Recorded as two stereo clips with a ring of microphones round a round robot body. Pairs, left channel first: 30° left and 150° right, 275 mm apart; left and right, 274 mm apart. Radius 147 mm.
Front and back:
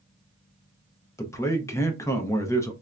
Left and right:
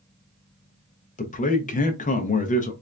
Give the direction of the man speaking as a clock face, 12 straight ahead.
9 o'clock.